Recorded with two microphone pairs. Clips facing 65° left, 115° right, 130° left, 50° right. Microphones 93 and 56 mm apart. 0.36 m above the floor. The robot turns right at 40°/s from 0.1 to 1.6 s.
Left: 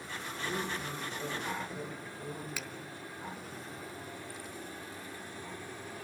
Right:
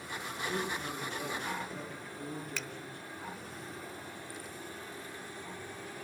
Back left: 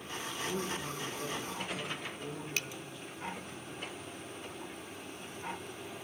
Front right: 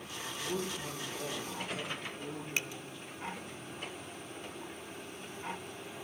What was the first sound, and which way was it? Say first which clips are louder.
A man speaking: right 1 dB, even; 165° left.